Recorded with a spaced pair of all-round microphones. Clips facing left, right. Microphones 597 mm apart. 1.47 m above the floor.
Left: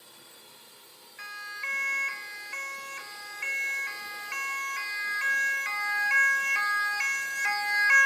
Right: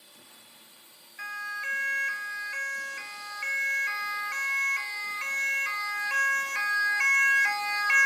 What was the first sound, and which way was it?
A drone, 85° left.